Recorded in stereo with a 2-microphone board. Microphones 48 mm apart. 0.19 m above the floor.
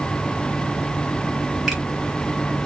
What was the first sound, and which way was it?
A finger snap, 5° right (ahead or behind).